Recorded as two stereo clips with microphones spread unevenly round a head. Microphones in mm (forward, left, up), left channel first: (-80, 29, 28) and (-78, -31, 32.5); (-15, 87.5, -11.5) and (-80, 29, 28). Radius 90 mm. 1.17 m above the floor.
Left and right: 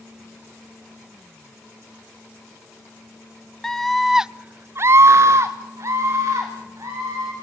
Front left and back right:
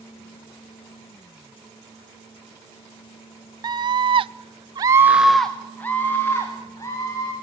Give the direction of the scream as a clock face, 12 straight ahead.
6 o'clock.